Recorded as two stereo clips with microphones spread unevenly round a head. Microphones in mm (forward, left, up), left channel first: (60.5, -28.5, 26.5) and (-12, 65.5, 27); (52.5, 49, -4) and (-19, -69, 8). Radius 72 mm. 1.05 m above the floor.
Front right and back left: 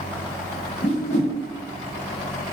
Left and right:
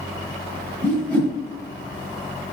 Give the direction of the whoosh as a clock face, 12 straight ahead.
1 o'clock.